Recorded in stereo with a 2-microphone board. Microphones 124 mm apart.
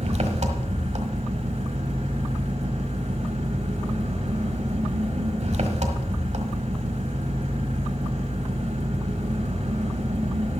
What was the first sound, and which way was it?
An engine running, 60° right (ahead or behind).